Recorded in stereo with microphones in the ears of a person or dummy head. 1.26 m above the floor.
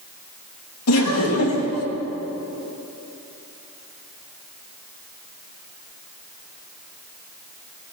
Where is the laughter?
85° left, 1.5 m.